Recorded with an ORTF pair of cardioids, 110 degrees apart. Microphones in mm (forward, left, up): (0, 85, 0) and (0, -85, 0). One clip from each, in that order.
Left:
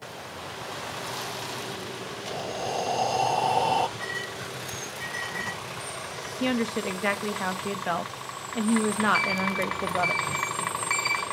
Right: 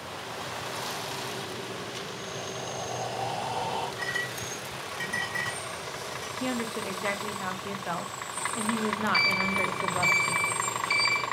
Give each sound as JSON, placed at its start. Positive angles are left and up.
{"t": 2.3, "sound": "breathing", "azimuth_deg": 50, "distance_m": 1.0}
{"t": 4.0, "sound": "a clink", "azimuth_deg": -60, "distance_m": 5.0}
{"t": 6.4, "sound": "a woman speaking", "azimuth_deg": 20, "distance_m": 0.8}
{"t": 9.1, "sound": "a sliding door", "azimuth_deg": -30, "distance_m": 1.3}